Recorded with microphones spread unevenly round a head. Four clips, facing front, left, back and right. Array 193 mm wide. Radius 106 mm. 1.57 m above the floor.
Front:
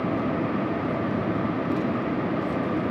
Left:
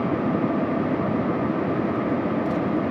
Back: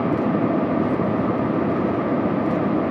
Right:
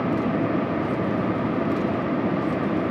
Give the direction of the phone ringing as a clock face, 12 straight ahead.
No phone ringing in this recording.